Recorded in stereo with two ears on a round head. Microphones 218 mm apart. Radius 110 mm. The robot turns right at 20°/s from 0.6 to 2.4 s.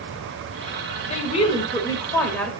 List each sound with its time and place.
1.1 s a woman speaking: 30° left (ahead or behind), 2.5 m; by 2.5 s 5° left (ahead or behind), 2.5 m